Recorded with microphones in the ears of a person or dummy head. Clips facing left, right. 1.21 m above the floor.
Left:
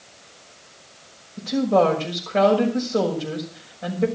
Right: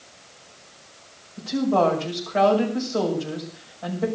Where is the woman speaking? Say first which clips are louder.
Left 2 dB; 35° left (ahead or behind), 6 m.